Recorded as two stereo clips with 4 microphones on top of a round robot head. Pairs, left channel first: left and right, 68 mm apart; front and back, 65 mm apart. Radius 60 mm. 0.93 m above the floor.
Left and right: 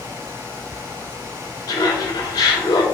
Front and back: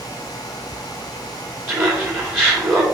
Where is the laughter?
125° left, 2 m.